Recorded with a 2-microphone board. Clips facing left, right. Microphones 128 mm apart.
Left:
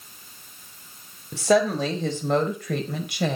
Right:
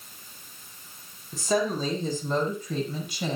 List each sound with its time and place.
1.3 s a woman speaking: 80° left, 4.5 m; by 3.4 s 65° left (ahead or behind), 4.5 m